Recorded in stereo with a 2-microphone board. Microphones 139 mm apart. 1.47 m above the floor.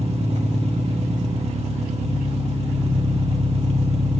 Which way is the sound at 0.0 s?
50° right (ahead or behind).